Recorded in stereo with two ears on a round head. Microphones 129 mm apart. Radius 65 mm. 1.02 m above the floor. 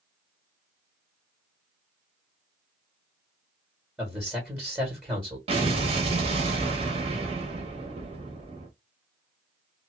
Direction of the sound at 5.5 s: 45° right (ahead or behind).